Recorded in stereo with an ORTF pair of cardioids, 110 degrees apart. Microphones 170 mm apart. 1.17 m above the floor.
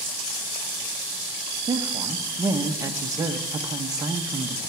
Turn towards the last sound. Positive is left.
turn(degrees=-20)